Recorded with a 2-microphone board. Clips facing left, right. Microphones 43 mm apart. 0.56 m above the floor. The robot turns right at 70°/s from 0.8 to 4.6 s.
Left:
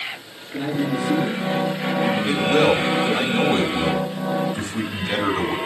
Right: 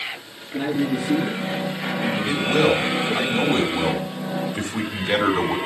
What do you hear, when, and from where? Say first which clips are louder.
0.5 s a man speaking: right 1 dB; 65° right, 5.5 m; by 3.3 s 110° left, 5.5 m
2.3 s a man speaking: left 1 dB; 75° left, 2.5 m; by 5.6 s 120° right, 2.5 m